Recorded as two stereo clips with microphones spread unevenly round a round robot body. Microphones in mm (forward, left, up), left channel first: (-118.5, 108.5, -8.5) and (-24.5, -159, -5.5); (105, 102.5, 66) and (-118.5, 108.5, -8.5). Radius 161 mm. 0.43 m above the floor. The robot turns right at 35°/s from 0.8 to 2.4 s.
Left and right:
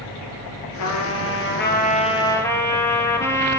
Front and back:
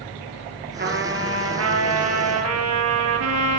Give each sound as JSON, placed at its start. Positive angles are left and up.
{"t": 0.8, "sound": "a trumpet", "azimuth_deg": 135, "distance_m": 4.0}